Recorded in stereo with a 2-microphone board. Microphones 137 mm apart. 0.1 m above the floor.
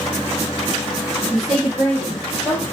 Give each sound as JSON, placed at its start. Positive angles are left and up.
{"t": 1.3, "sound": "a woman speaking", "side_deg": 0, "distance_m": 4.5}